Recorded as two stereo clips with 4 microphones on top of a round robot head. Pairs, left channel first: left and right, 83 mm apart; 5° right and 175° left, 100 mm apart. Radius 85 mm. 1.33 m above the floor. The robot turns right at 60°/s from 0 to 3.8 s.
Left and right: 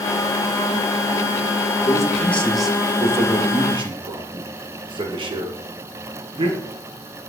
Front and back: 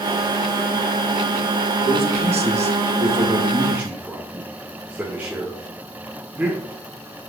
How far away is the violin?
I don't hear a violin.